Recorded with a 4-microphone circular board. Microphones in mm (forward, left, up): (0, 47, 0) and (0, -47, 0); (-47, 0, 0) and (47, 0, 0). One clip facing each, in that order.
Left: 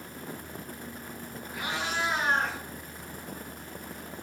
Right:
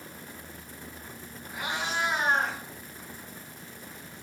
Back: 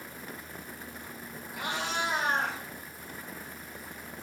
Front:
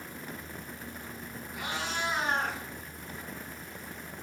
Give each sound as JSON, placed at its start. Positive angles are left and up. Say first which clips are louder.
{"t": 1.5, "sound": "a cat meowing", "louder": "right 1 dB, back 2 dB", "azimuth_deg": -165, "distance_m": 5.0}